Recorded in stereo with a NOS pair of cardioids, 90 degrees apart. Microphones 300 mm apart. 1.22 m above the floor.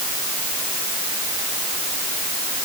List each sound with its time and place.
Only background noise.